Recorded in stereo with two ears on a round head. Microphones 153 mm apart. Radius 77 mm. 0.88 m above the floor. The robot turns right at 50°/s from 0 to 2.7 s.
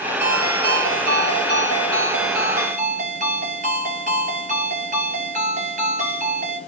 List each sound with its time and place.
0.2 s a ringtone: 170° right, 9 m; by 6.6 s 45° right, 9 m